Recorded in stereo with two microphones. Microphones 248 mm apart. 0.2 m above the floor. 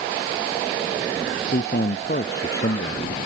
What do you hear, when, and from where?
1.5 s a man speaking: 40° left (ahead or behind)